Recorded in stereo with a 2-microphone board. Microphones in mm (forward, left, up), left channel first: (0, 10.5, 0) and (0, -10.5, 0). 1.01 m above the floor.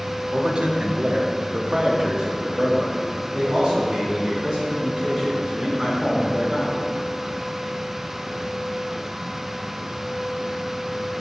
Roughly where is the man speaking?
Right.